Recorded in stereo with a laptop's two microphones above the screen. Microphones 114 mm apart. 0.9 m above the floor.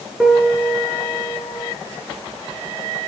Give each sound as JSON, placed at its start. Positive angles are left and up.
{"t": 0.2, "sound": "a piano", "side_deg": -5, "distance_m": 3.0}